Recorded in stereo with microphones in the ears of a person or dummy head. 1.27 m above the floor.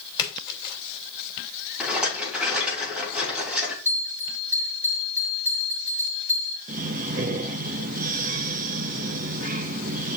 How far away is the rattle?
About 3.5 m.